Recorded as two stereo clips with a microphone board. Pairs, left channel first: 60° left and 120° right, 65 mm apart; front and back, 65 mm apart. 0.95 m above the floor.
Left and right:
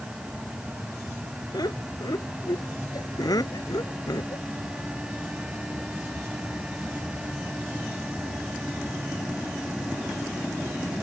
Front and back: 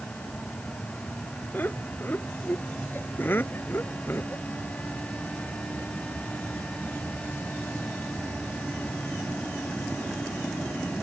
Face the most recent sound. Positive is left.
turn(degrees=55)